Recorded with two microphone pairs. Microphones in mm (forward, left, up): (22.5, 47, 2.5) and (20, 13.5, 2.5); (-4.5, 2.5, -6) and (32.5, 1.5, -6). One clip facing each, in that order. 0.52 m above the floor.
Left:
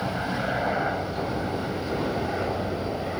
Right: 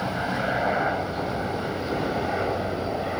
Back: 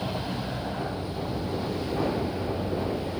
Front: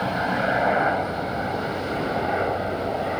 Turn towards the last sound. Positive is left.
turn(degrees=-20)